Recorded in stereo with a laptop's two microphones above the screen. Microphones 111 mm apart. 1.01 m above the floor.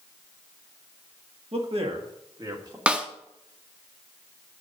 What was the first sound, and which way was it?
A man speaking, 65° right (ahead or behind).